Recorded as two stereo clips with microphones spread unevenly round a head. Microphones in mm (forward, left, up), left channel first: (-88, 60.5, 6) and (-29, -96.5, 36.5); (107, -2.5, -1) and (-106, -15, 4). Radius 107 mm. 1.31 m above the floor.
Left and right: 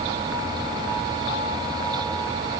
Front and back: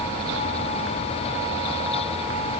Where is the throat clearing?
No throat clearing in this recording.